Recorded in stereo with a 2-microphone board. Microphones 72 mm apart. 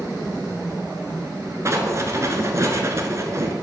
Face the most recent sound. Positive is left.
turn(degrees=-40)  # may be behind; listen again after turning